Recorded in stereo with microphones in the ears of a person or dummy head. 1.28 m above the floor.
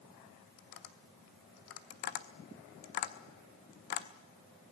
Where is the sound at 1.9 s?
30° left (ahead or behind), 0.7 m.